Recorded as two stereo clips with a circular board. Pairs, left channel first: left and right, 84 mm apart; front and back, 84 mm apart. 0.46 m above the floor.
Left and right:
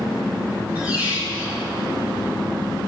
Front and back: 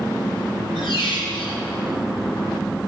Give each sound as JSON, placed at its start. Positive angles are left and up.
{"t": 0.8, "sound": "a squeak", "azimuth_deg": -20, "distance_m": 3.0}